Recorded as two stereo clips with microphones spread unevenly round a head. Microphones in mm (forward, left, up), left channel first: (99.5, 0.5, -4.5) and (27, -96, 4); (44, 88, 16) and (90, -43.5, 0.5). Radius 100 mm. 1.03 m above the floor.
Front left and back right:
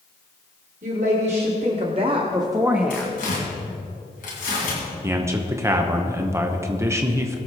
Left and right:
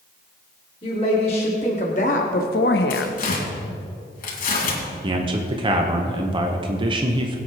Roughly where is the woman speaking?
Behind.